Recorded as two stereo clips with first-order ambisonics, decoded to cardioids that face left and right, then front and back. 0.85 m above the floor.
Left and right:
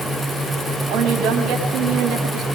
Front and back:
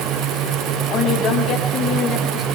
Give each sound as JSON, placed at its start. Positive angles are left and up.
{"t": 0.9, "sound": "a woman speaking", "azimuth_deg": -65, "distance_m": 6.0}